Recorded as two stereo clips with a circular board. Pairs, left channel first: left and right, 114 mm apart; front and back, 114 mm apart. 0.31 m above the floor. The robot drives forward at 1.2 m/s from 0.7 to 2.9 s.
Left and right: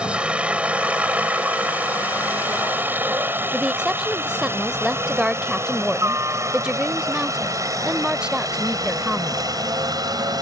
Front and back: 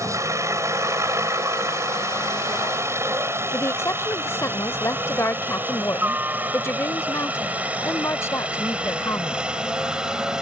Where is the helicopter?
160° right; by 10.4 s 100° right.